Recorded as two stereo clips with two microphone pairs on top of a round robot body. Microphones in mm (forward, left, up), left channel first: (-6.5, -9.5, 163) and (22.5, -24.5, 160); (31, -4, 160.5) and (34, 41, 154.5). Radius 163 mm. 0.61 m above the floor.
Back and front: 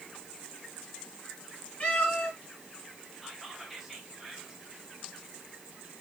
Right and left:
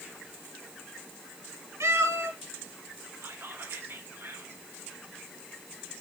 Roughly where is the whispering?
Ahead left.